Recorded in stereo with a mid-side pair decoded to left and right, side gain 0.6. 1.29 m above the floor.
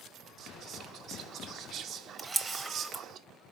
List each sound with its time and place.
0.4 s whispering: 50° right, 0.6 m
2.2 s a camera shutter: 20° right, 0.7 m